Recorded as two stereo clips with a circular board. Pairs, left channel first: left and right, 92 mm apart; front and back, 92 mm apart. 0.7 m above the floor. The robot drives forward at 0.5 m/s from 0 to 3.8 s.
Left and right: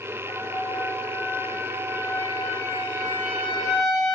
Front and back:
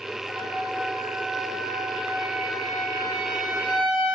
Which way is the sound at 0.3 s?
115° left.